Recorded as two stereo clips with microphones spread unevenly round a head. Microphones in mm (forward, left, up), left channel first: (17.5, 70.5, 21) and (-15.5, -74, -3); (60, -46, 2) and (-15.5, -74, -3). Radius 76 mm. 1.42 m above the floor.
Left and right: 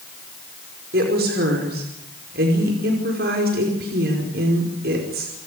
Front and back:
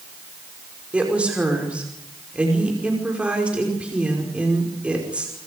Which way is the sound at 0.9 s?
85° right.